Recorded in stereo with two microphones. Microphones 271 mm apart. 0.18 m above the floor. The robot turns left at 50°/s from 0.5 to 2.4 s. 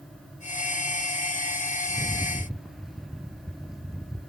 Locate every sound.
1.9 s a rattle: 25° left (ahead or behind), 1.1 m; by 4.3 s centre (ahead or behind), 1.1 m